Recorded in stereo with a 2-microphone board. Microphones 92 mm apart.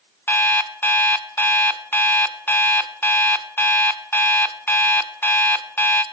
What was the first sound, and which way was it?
An alarm clock, 25° left (ahead or behind).